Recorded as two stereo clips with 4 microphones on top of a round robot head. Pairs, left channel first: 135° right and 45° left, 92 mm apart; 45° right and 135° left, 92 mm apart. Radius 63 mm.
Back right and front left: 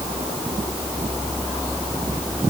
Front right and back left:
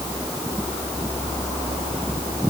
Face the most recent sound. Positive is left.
No sound to turn to.